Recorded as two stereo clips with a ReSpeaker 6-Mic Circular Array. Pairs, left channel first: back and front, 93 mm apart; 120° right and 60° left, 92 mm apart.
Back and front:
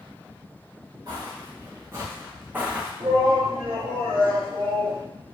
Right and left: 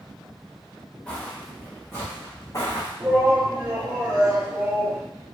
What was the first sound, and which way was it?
Footsteps, 45° right.